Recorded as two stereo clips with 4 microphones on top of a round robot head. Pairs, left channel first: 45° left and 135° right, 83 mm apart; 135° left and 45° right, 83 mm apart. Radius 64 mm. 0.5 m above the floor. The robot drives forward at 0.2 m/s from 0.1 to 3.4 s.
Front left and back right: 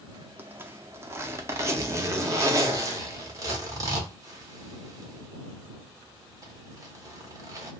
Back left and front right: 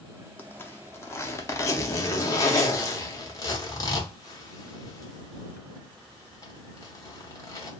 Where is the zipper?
Straight behind, 0.6 m.